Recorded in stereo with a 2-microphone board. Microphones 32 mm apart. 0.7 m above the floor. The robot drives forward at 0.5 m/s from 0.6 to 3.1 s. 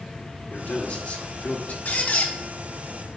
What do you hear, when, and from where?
0.5 s a man speaking: 45° left (ahead or behind), 1.7 m; by 1.8 s 60° left (ahead or behind), 1.4 m
1.9 s a squeak: 60° left (ahead or behind), 1.6 m; by 2.3 s 65° left (ahead or behind), 1.5 m